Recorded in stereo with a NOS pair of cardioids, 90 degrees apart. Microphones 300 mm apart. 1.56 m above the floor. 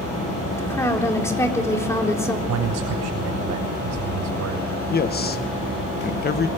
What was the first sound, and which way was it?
A woman speaking, 10° left.